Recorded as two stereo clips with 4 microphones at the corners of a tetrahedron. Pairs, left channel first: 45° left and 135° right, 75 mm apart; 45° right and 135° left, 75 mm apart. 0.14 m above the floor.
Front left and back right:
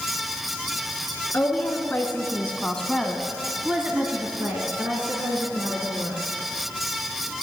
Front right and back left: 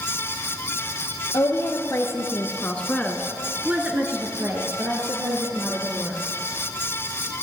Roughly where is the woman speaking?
Ahead.